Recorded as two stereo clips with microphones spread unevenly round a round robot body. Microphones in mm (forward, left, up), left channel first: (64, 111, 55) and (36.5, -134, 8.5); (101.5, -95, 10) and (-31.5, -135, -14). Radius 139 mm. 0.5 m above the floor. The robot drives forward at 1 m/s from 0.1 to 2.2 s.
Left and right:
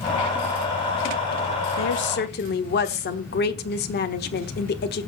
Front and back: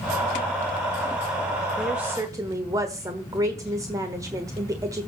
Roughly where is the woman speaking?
Left.